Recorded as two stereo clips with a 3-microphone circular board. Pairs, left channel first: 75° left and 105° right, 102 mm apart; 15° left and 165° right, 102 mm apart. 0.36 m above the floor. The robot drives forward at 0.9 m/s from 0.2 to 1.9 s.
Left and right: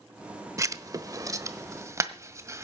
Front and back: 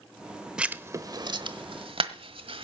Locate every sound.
0.6 s writing: 90° right, 0.8 m; by 2.6 s 160° right, 1.4 m